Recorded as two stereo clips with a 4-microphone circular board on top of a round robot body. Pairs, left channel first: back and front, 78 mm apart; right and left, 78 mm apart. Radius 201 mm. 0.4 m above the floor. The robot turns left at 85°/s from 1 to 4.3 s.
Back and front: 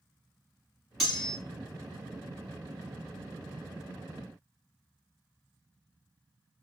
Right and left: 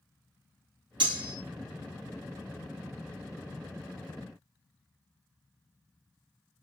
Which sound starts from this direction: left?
Cutlery clinking, at 1.0 s.